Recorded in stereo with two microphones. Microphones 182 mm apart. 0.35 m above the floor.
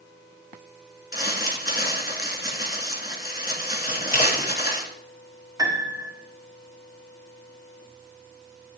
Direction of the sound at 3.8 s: 45° left (ahead or behind).